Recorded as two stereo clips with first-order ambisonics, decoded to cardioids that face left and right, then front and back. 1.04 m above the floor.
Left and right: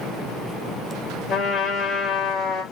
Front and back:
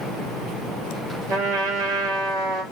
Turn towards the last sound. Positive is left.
turn(degrees=145)